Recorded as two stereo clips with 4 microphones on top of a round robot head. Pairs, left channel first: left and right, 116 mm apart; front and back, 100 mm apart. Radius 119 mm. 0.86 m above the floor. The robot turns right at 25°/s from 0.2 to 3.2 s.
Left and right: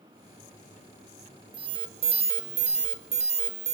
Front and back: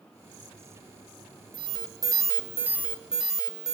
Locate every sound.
1.5 s an alarm: 135° right, 2.5 m; by 3.7 s 95° right, 2.5 m